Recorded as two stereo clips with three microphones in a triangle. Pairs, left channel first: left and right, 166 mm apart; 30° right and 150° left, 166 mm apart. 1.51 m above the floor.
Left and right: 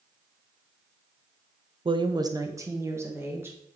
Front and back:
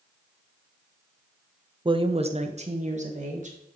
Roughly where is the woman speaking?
Behind right.